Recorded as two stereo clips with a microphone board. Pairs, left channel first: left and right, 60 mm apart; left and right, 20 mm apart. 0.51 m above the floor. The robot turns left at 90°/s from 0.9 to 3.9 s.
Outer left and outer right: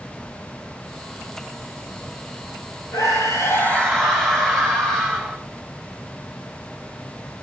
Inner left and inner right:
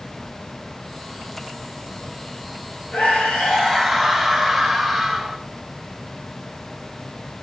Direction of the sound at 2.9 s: 95° left.